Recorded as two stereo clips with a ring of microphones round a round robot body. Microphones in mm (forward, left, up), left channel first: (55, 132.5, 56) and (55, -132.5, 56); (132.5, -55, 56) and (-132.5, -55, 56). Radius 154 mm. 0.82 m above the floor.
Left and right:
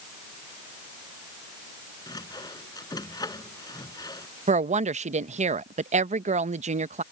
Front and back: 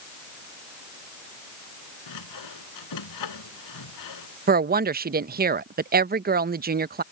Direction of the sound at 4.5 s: 140° right.